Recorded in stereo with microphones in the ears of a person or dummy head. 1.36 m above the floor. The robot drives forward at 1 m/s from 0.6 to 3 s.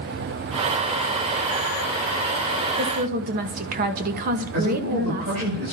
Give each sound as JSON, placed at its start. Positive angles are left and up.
{"t": 2.8, "sound": "a woman speaking", "side_deg": -40, "distance_m": 1.4}
{"t": 4.5, "sound": "a man speaking", "side_deg": -75, "distance_m": 9.0}